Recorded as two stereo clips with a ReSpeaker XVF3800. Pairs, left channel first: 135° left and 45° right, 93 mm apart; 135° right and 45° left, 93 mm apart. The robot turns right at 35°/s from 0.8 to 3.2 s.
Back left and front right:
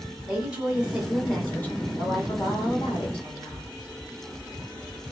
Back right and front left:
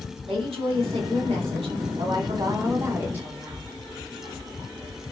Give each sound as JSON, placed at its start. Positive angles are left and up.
{"t": 0.3, "sound": "a woman speaking", "azimuth_deg": 35, "distance_m": 1.3}